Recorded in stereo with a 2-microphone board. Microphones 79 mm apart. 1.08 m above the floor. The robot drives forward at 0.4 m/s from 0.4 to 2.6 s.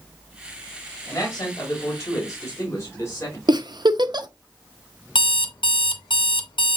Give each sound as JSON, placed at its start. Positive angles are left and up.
{"t": 1.1, "sound": "a man speaking", "side_deg": 45, "distance_m": 2.0}
{"t": 3.5, "sound": "a giggle", "side_deg": -60, "distance_m": 0.5}
{"t": 5.2, "sound": "an alarm clock", "side_deg": 75, "distance_m": 0.6}